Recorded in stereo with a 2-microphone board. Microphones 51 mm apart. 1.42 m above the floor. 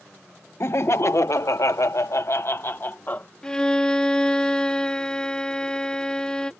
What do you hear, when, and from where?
0.6 s laughter: 55° left (ahead or behind); by 3.3 s 35° left (ahead or behind)
3.4 s a violin: 15° left (ahead or behind)